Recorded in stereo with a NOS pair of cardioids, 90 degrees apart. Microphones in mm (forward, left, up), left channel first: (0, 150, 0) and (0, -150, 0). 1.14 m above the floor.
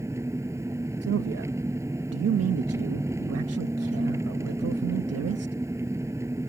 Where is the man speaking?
55° right.